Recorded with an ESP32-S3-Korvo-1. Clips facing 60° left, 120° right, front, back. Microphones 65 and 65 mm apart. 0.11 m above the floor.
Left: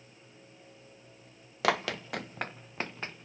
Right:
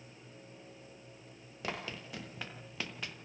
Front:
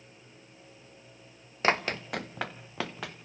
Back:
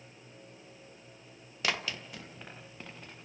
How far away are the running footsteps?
About 1.5 m.